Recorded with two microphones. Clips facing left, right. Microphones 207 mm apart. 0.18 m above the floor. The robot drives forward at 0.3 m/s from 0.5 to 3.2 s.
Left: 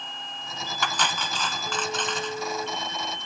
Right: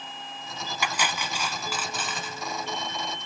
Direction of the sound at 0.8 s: 10° right (ahead or behind).